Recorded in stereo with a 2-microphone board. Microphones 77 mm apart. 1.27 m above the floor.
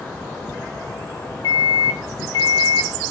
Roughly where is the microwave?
Left.